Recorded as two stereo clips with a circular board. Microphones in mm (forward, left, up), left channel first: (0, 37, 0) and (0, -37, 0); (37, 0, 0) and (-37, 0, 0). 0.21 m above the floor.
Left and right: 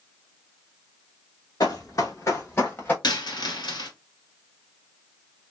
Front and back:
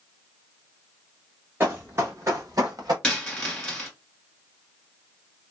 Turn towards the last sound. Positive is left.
turn(degrees=80)